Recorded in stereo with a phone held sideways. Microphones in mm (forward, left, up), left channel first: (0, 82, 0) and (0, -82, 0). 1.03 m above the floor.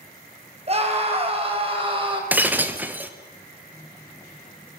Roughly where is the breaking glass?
Centre.